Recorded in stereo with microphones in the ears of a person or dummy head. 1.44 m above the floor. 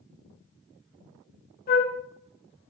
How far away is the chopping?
No chopping in this recording.